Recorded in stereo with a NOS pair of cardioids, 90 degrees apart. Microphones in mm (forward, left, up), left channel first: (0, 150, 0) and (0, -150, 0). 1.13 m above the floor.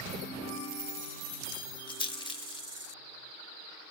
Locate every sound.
1.9 s a rattle: 15° left, 1.1 m